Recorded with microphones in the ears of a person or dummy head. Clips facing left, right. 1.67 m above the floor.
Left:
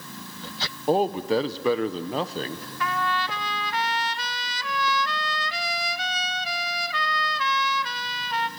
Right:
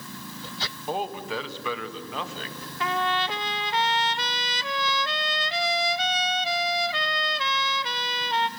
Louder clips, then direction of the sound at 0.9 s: Left 9 dB; 35° left (ahead or behind).